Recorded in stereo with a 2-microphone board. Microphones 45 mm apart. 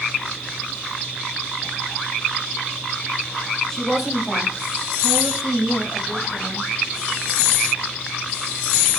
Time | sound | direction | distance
3.7 | a woman speaking | 10° left (ahead or behind) | 1.0 m